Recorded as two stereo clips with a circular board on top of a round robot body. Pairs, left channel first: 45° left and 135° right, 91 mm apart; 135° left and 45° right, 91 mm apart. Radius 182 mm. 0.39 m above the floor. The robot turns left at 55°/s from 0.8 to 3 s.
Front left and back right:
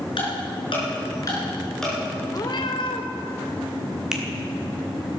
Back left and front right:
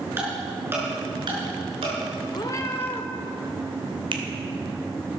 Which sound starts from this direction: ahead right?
A finger snap, at 4.1 s.